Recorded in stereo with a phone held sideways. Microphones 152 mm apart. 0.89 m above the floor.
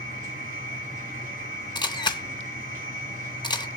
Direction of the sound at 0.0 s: 60° right (ahead or behind).